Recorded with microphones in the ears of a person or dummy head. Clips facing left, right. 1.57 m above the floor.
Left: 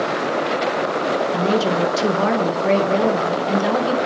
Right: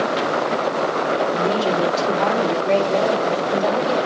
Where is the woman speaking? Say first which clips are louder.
Left 1 dB; 85° left, 2 m.